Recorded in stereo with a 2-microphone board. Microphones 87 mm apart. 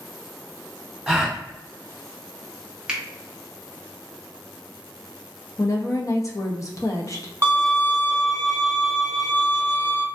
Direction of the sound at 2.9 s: 10° right (ahead or behind).